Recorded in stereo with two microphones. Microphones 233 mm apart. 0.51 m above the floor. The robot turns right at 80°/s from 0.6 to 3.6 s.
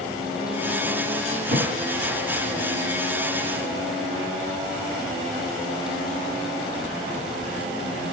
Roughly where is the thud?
Right.